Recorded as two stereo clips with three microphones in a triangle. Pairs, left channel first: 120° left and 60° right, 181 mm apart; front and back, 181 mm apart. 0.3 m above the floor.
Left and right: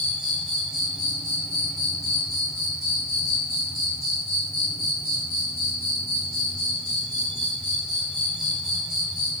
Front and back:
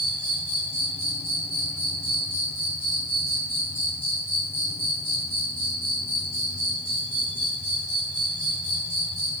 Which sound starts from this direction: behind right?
An insect, at 0.0 s.